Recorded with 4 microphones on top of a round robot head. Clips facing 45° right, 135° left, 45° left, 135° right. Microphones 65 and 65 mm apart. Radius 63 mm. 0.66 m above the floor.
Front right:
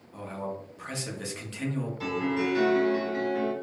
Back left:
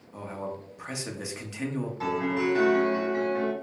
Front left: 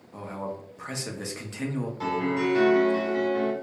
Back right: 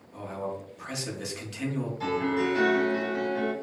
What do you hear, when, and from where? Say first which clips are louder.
0.1 s a man speaking: even, even; 75° left, 0.9 m
2.0 s a piano: back left 2 dB, front left 1 dB; 80° left, 1.9 m